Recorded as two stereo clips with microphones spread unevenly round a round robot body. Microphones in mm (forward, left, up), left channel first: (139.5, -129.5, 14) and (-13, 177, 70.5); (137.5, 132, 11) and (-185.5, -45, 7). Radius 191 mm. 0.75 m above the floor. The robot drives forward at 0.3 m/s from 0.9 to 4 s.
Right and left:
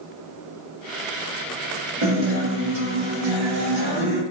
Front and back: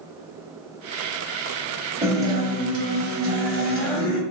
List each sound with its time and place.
2.0 s a guitar: 125° left, 0.7 m; by 4.2 s 155° left, 1.1 m